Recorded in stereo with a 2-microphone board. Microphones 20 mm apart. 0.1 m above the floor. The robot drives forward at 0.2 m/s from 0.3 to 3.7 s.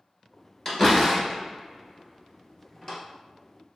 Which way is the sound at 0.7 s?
30° left (ahead or behind).